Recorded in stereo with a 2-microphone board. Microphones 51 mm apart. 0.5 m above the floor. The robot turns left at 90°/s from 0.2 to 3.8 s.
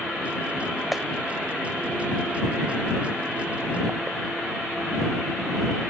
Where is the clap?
5° right (ahead or behind); by 1.0 s 5° left (ahead or behind).